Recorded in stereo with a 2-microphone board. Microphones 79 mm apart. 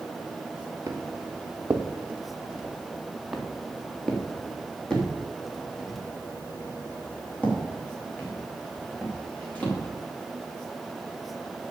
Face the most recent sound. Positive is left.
turn(degrees=20)  # may be behind; listen again after turning